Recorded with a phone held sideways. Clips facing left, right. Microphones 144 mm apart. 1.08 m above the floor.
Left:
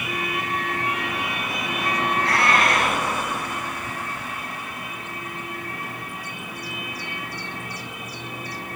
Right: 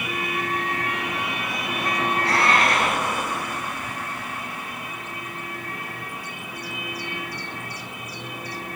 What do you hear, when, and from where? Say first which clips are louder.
2.2 s a cat meowing: right 1 dB; 25° right (ahead or behind), 1.9 m